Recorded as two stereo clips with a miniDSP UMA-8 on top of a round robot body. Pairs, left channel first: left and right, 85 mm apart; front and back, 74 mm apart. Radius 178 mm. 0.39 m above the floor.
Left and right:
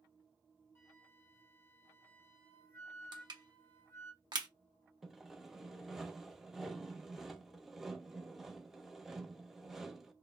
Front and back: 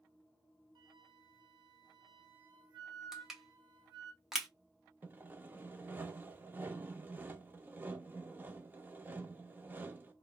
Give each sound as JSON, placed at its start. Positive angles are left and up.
{"t": 0.8, "sound": "a flute", "azimuth_deg": 155, "distance_m": 0.5}
{"t": 3.1, "sound": "crushing", "azimuth_deg": -95, "distance_m": 1.1}
{"t": 5.0, "sound": "sawing", "azimuth_deg": -170, "distance_m": 0.8}